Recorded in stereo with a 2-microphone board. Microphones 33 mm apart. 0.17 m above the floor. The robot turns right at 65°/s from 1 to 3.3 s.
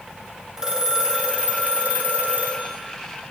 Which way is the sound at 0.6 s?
155° right.